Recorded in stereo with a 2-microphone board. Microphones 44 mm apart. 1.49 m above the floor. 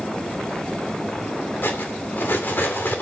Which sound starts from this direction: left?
Cutlery clinking, at 1.6 s.